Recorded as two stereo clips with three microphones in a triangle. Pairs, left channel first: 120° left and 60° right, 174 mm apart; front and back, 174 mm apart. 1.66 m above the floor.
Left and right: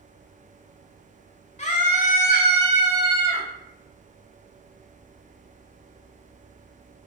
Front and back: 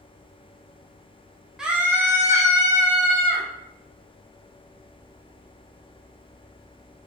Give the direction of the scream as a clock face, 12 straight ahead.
9 o'clock.